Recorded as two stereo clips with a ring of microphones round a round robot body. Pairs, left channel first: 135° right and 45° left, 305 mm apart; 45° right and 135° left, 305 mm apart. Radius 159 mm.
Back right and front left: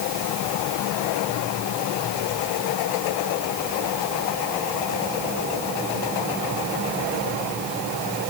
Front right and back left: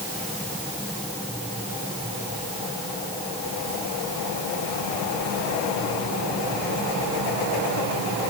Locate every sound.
Only background noise.